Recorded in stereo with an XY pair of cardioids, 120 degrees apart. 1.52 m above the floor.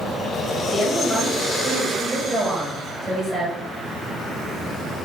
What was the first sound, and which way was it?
A woman speaking, 15° right.